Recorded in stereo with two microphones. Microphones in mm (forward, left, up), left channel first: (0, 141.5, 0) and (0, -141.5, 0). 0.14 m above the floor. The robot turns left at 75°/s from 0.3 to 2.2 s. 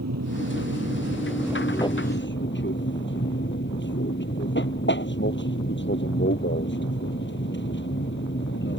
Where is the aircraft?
80° right; by 8.8 s 135° left.